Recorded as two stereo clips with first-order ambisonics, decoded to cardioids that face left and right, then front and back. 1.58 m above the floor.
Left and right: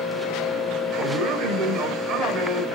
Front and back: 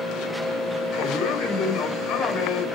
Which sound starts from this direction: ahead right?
A man speaking, at 0.9 s.